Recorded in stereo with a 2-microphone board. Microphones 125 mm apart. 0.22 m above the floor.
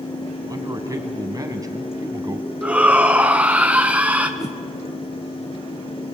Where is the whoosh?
55° left (ahead or behind), 1.1 m.